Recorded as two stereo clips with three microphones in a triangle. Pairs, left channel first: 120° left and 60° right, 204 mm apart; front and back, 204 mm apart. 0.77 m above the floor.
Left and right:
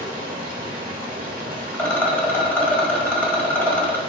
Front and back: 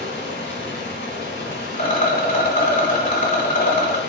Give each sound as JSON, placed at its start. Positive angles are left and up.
{"t": 0.0, "sound": "running water", "azimuth_deg": -20, "distance_m": 1.0}
{"t": 1.7, "sound": "a rattle", "azimuth_deg": 40, "distance_m": 1.0}